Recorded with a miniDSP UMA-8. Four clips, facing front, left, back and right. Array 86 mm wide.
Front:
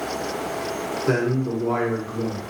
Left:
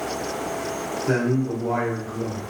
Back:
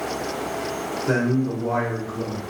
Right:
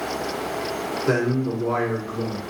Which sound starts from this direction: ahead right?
A man speaking, at 1.1 s.